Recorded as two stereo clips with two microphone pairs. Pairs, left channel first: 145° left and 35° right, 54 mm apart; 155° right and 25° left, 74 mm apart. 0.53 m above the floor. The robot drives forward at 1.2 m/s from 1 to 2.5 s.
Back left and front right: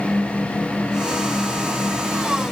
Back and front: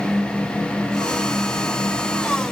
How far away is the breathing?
No breathing in this recording.